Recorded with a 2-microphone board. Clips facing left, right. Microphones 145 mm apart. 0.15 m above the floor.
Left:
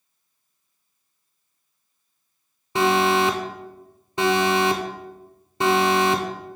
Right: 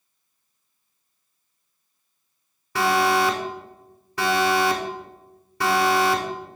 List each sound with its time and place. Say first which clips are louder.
2.8 s an alarm: left 1 dB; 25° left (ahead or behind), 0.9 m